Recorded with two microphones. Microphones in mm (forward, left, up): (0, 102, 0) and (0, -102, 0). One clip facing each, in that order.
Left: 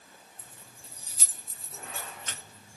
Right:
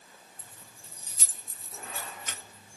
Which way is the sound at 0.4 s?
15° left (ahead or behind).